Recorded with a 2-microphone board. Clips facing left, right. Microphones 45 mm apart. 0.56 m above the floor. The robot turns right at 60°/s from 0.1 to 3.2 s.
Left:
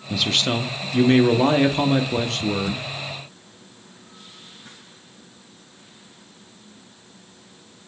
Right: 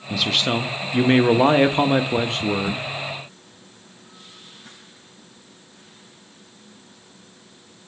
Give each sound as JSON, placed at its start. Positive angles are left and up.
{"t": 0.1, "sound": "a man speaking", "side_deg": 0, "distance_m": 0.6}